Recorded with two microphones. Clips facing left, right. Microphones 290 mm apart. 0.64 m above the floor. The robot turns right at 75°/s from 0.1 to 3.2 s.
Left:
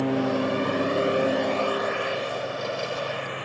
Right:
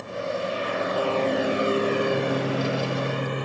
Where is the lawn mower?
90° left; by 3.5 s 50° right (ahead or behind).